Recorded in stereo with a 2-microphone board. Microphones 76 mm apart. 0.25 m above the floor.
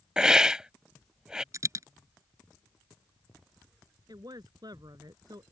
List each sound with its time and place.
0.2 s a hiss: 10° right (ahead or behind)
1.5 s a dropped coin: 45° right (ahead or behind)
4.1 s a woman speaking: 60° right (ahead or behind)